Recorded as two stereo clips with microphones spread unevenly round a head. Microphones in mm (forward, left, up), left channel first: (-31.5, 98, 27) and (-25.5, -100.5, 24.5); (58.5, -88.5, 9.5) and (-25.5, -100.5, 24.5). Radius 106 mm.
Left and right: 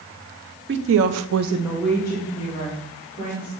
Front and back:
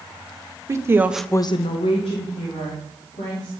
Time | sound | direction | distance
0.7 | a woman speaking | 120° right | 1.2 m